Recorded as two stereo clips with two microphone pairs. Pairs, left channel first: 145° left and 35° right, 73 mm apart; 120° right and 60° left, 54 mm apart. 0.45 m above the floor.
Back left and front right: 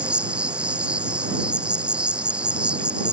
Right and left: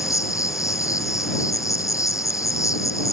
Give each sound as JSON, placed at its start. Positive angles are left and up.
{"t": 0.0, "sound": "an insect", "azimuth_deg": -110}